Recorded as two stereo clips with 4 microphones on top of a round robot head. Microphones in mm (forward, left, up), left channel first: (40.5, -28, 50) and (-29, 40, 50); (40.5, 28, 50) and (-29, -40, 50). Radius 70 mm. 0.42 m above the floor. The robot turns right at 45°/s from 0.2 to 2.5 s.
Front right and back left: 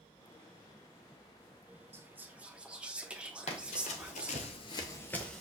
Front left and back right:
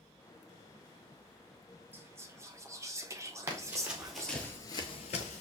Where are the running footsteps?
70° right, 1.0 m; by 5.4 s 40° left, 0.7 m.